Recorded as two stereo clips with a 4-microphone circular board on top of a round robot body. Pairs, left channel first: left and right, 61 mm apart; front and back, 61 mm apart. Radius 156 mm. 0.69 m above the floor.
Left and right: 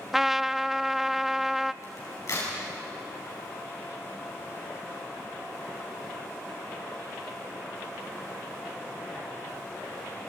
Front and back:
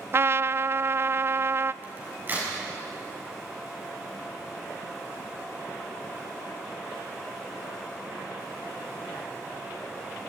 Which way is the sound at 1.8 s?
125° left.